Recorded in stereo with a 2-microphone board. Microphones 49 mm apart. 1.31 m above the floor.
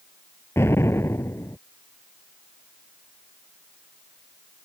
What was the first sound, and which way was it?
An explosion, 60° left (ahead or behind).